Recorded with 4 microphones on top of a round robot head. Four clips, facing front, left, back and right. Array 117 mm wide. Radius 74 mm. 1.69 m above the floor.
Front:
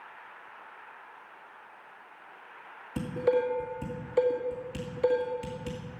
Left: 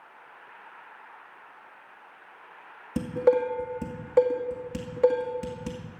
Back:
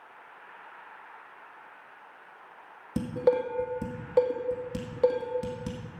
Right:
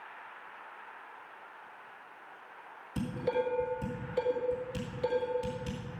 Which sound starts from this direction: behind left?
Dishes clattering, at 3.0 s.